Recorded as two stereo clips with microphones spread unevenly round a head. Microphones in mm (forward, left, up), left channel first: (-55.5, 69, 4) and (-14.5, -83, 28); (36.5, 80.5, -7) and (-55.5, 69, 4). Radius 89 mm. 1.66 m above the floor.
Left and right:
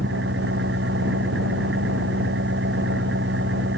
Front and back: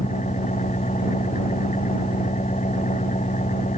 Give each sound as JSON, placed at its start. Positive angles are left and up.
{"t": 0.0, "sound": "an engine running", "azimuth_deg": -40}